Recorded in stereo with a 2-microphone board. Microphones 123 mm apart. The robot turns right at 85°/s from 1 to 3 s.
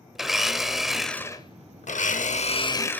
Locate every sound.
0.1 s a blender: straight ahead, 0.6 m; by 3.0 s 170° left, 0.6 m